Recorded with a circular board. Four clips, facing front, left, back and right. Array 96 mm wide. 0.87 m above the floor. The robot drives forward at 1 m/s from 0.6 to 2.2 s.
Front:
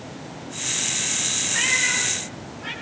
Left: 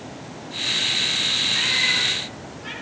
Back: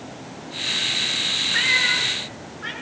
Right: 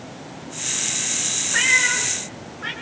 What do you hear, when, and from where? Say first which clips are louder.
1.5 s a cat meowing: right 6 dB, back 2 dB; 115° right, 6 m; by 2.7 s 120° right, 6.5 m